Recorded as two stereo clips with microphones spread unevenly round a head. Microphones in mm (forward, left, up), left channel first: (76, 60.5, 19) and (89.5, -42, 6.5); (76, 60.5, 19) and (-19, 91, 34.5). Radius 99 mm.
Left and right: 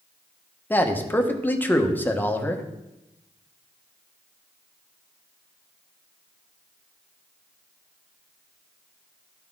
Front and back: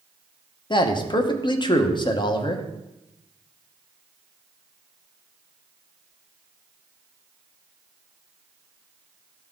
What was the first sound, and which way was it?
A man speaking, 20° left.